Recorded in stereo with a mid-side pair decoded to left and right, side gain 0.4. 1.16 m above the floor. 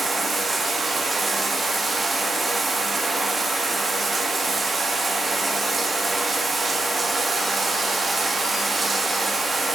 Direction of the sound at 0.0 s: 35° right.